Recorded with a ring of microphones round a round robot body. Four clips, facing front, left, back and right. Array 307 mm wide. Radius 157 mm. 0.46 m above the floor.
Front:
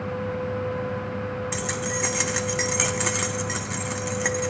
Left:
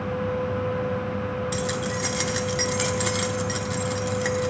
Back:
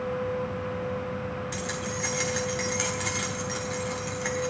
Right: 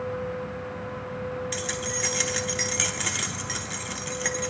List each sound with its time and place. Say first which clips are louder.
1.5 s keys jangling: left 5 dB, front 4 dB; 20° left, 0.9 m